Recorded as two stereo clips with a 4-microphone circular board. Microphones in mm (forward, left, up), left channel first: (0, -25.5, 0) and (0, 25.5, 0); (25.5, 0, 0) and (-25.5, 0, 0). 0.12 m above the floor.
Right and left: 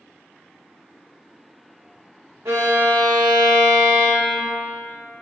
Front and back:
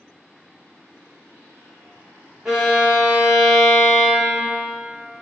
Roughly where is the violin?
Left.